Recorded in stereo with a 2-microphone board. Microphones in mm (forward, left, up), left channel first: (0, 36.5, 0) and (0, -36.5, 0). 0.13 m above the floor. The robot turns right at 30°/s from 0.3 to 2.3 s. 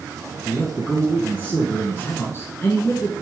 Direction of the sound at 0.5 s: 25° left.